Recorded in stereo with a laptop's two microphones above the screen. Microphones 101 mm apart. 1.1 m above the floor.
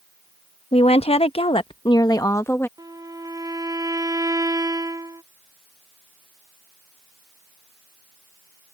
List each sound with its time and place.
0.7 s a woman speaking: 85° left; by 2.7 s 20° left (ahead or behind)
2.8 s a violin: 45° right (ahead or behind)